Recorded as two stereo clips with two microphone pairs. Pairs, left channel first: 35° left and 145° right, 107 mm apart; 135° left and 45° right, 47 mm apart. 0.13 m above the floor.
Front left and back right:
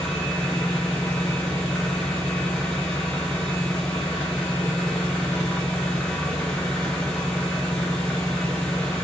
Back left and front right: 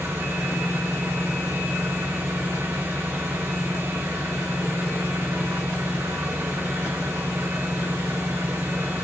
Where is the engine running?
45° right, 3 m.